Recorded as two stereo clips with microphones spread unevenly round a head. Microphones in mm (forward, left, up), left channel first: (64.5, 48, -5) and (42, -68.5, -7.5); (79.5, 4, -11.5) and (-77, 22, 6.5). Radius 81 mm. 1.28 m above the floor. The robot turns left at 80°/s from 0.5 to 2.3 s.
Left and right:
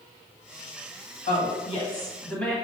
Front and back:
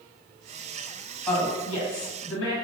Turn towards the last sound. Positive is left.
turn(degrees=-5)